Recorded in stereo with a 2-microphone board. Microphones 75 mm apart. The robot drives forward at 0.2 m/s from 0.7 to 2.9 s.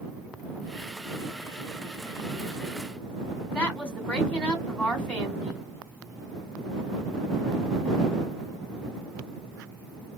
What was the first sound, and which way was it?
A woman speaking, 15° left (ahead or behind).